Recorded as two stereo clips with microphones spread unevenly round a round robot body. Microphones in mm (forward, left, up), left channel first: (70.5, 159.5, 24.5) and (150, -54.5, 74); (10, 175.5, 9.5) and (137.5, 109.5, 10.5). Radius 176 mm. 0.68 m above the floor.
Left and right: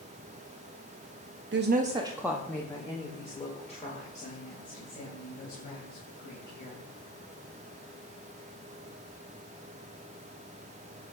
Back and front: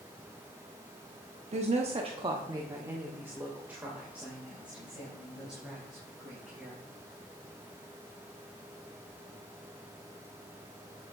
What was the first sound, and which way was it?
A woman speaking, 40° right.